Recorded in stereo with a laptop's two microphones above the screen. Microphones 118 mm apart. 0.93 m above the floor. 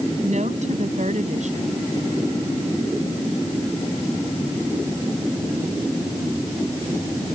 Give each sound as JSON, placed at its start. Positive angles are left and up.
{"t": 0.2, "sound": "a woman speaking", "side_deg": -85}